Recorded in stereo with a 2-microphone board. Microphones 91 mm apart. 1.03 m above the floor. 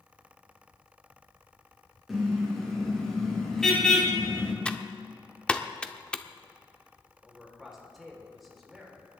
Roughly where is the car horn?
Centre.